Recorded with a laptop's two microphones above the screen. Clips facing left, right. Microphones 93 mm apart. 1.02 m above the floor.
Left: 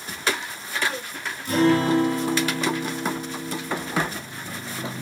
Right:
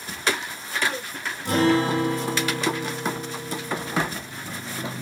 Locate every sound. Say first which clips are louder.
1.4 s a guitar: left 1 dB; 65° right (ahead or behind), 1.2 m